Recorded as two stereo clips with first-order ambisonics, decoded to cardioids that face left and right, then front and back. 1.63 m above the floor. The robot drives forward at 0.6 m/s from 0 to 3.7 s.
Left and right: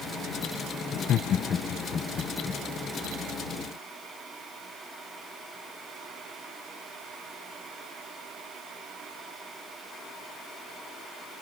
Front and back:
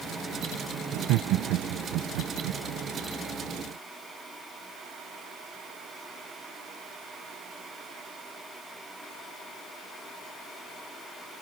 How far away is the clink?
I don't hear a clink.